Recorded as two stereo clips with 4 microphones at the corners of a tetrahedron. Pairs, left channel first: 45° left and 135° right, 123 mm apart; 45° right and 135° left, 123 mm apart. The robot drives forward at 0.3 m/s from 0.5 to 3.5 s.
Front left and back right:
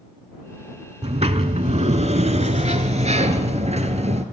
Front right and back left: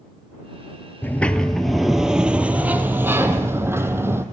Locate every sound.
1.0 s a sliding door: 115° right, 0.6 m; by 4.2 s 155° right, 1.1 m